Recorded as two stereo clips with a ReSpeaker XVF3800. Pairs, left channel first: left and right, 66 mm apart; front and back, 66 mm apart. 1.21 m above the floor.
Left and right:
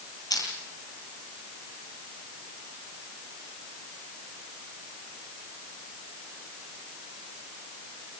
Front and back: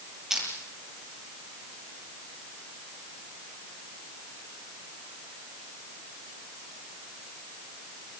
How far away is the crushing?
About 9 m.